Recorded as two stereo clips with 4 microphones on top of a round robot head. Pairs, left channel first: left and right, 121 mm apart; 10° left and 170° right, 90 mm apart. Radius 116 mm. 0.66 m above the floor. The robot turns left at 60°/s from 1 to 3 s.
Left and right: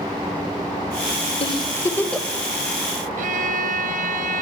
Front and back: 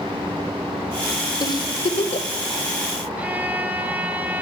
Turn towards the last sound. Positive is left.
turn(degrees=-95)